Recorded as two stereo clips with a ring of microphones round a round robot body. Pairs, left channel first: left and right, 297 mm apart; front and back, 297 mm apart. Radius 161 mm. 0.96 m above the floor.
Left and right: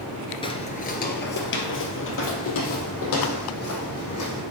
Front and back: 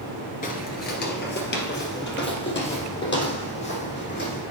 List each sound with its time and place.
0.4 s footsteps: 30° left, 1.0 m; by 4.4 s 55° left, 3.5 m